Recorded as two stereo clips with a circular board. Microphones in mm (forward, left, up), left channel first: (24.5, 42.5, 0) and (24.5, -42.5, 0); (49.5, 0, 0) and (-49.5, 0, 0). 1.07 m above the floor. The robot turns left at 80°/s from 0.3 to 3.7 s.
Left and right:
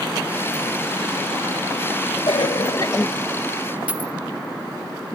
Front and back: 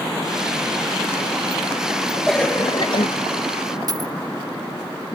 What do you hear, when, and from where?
2.3 s a cough: 85° left, 0.8 m; by 3.1 s 20° left, 0.8 m
3.9 s a dropped coin: 155° right, 0.7 m